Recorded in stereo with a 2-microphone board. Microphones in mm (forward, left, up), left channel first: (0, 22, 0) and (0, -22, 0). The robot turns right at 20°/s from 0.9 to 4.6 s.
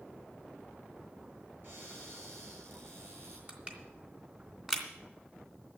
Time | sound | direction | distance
1.6 | a cupboard door | 115° right | 8.5 m
3.5 | crushing | 30° right (ahead or behind) | 2.5 m